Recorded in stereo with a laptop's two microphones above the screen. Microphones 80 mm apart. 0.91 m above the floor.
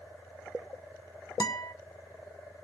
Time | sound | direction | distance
1.4 | a guitar | 45° left (ahead or behind) | 0.7 m